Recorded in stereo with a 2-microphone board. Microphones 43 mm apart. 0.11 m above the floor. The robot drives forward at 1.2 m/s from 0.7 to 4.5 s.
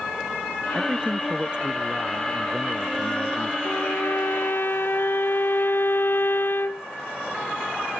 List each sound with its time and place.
0.8 s a man speaking: 25° right (ahead or behind); by 3.5 s 20° right (ahead or behind)
3.6 s a violin: 75° left (ahead or behind); by 6.9 s 60° left (ahead or behind)